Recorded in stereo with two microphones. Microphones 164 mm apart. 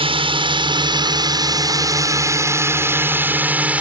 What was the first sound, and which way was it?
A drone, 35° right (ahead or behind).